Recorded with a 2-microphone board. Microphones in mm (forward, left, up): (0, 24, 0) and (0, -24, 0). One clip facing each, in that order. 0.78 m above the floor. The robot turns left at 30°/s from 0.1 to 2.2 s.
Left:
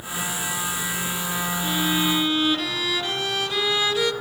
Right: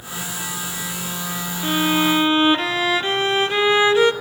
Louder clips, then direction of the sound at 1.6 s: Right 6 dB; 45° right (ahead or behind).